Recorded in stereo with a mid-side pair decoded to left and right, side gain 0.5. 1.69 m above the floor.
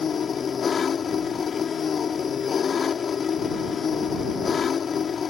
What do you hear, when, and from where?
0.0 s an engine running: 40° left